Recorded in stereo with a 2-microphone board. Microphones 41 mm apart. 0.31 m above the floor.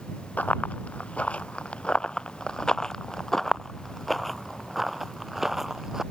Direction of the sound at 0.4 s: 40° left (ahead or behind).